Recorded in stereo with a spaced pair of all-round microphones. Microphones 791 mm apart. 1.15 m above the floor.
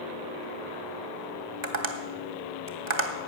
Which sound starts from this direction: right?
Tapping, at 1.6 s.